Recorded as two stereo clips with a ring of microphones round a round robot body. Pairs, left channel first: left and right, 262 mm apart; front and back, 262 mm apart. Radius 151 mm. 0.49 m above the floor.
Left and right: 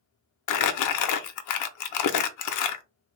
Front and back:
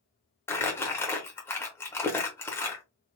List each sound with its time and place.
0.5 s crumpling: 80° left, 0.6 m